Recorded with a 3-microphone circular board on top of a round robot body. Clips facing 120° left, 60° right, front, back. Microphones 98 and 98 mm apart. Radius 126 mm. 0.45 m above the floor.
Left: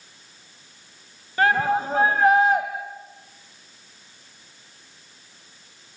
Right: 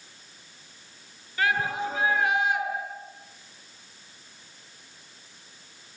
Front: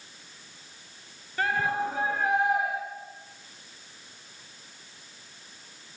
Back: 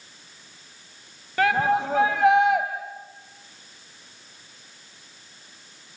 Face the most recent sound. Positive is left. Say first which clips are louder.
# left 6 dB, back 6 dB
turn(degrees=175)